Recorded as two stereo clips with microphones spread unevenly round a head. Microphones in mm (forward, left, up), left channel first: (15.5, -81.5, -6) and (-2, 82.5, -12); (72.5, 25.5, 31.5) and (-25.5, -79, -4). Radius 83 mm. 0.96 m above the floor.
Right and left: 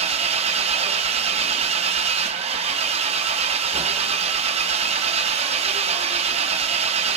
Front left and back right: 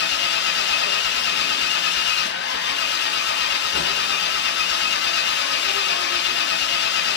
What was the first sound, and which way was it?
An engine running, 45° left.